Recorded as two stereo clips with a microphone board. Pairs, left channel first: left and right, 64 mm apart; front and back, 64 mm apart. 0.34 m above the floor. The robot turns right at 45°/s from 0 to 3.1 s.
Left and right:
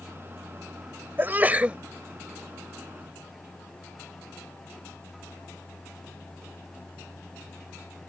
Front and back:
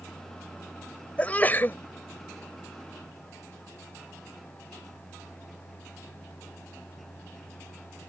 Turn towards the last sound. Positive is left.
turn(degrees=30)